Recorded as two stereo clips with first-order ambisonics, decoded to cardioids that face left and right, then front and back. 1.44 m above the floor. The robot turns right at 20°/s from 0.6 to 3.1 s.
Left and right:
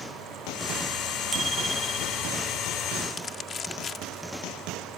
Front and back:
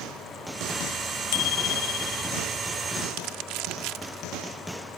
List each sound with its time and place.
1.3 s a bicycle bell: 10° right; by 2.3 s 10° left
3.1 s crumpling: 155° left